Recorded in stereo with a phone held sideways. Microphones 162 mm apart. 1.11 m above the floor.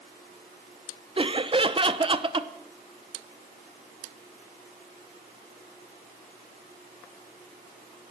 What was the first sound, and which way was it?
Laughter, 35° right (ahead or behind).